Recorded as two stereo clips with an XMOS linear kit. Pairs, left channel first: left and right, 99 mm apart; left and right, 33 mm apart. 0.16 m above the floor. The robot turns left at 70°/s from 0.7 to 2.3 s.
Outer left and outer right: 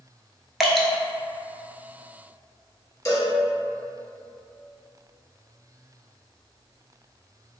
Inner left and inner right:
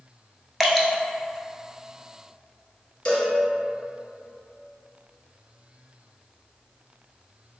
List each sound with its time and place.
0.6 s dripping: 5° right (ahead or behind), 0.6 m; by 0.9 s 10° left (ahead or behind), 0.6 m
3.0 s a cowbell: 35° left (ahead or behind), 1.0 m